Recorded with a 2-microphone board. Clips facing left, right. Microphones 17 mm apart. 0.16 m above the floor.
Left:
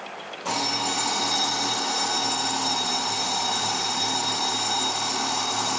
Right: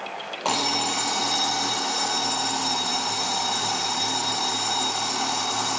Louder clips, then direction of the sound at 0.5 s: Right 2 dB; 70° right (ahead or behind).